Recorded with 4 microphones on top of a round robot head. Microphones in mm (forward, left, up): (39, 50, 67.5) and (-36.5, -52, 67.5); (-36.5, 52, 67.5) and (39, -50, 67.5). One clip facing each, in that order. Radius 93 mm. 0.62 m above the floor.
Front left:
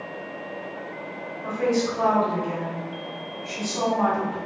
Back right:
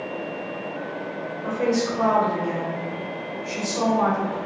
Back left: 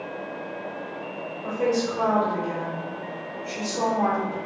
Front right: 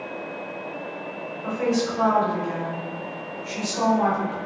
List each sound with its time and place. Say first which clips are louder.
1.4 s a woman speaking: even, even; 65° right, 1.9 m